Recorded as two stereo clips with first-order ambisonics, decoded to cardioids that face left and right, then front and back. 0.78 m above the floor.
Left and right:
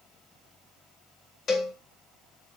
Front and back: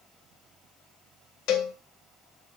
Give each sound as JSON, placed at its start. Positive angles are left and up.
{"t": 1.5, "sound": "a cowbell", "azimuth_deg": 25, "distance_m": 0.8}